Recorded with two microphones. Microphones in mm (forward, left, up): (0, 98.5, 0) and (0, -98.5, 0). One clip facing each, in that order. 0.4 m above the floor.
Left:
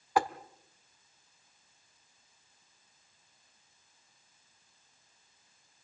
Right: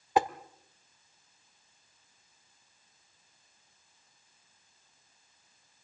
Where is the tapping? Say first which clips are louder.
Right 2 dB; 20° right (ahead or behind), 0.9 m.